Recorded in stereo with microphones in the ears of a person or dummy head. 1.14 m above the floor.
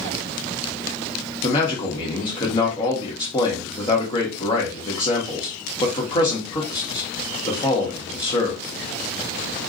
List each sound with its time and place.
1.4 s a man speaking: 25° left (ahead or behind), 1.1 m